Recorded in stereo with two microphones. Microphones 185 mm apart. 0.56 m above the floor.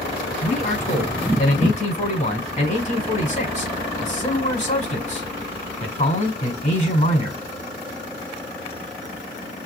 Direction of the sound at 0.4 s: 40° left (ahead or behind).